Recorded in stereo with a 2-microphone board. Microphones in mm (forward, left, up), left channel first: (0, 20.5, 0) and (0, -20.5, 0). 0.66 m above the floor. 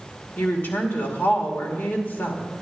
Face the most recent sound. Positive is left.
turn(degrees=60)  # may be behind; listen again after turning